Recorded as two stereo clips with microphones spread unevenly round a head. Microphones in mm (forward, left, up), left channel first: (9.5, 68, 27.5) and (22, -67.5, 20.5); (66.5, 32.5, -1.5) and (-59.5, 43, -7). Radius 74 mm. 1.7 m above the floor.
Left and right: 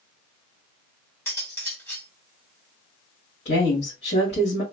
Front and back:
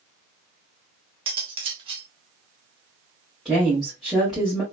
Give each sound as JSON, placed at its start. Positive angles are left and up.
{"t": 1.3, "sound": "cutlery clinking", "azimuth_deg": 160, "distance_m": 1.0}
{"t": 3.5, "sound": "a woman speaking", "azimuth_deg": 85, "distance_m": 1.5}